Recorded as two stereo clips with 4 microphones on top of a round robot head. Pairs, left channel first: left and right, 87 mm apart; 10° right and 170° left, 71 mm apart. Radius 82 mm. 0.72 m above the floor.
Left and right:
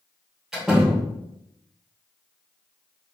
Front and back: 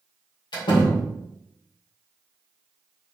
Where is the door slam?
5° right, 1.6 m.